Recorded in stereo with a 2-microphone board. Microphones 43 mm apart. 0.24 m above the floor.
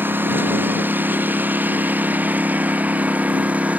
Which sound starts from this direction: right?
A lawn mower, at 0.0 s.